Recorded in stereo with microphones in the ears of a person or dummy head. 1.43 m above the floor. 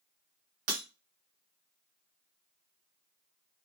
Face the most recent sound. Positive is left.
turn(degrees=-45)  # may be behind; listen again after turning